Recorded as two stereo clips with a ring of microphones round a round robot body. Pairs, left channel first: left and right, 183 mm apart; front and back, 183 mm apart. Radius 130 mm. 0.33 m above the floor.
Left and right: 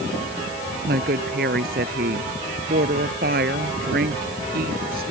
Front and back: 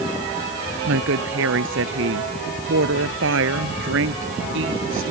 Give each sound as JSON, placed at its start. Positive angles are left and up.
{"t": 0.9, "sound": "a woman speaking", "azimuth_deg": -145}